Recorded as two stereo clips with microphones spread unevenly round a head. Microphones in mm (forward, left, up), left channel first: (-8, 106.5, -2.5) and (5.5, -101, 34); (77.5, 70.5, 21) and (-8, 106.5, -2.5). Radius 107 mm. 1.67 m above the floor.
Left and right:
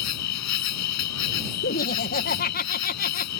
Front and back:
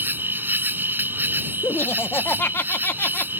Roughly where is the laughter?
Ahead left.